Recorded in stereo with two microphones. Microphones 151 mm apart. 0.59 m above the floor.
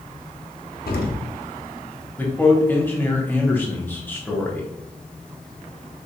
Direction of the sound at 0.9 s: 80° left.